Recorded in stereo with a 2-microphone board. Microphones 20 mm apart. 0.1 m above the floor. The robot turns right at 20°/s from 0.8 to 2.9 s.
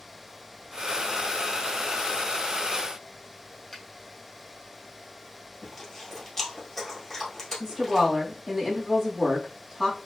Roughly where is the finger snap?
Centre.